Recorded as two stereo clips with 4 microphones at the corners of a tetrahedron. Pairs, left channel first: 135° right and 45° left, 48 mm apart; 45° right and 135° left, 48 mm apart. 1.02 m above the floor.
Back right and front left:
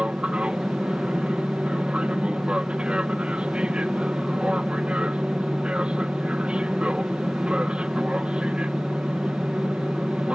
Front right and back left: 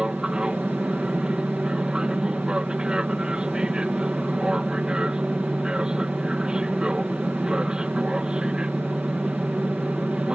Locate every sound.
0.0 s an aircraft: 85° left